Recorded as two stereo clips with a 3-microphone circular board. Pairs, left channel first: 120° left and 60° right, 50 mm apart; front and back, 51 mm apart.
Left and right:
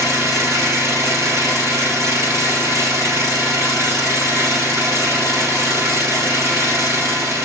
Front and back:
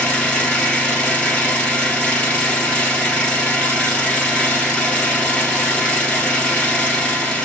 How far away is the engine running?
About 3 m.